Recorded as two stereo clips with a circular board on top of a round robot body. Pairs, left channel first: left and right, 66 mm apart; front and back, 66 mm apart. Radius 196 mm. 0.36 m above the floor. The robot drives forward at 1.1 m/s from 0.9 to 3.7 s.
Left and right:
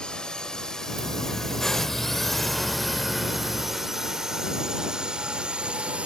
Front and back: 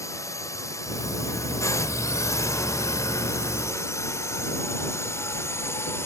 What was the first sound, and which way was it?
A drone, 15° left.